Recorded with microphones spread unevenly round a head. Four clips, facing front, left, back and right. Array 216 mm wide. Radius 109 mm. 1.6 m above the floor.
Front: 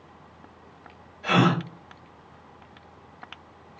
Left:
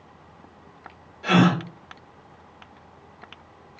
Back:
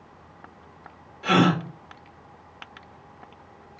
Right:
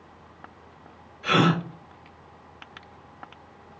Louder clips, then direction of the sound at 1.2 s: Left 2 dB, back 2 dB; 140° left.